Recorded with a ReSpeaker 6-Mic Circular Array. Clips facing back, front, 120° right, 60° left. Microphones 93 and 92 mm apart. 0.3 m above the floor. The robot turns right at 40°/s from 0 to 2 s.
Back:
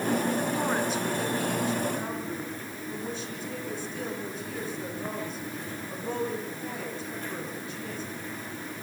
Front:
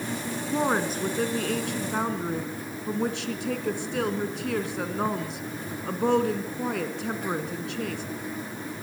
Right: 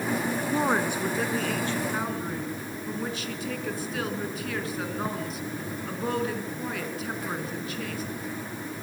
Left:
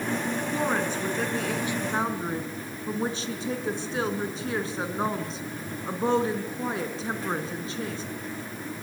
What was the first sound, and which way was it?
A woman speaking, 60° right.